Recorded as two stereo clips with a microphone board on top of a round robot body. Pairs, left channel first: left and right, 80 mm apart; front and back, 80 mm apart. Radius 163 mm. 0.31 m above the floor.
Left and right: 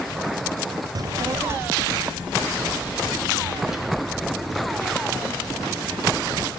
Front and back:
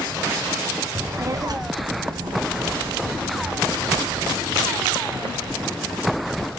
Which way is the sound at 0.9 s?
125° right.